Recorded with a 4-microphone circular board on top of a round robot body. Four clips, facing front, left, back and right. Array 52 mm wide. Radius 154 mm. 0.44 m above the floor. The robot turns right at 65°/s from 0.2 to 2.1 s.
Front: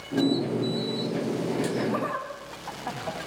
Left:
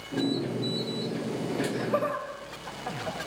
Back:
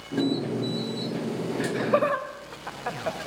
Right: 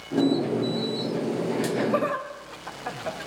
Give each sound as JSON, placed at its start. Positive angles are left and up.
{"t": 1.6, "sound": "laughter", "azimuth_deg": 170, "distance_m": 3.0}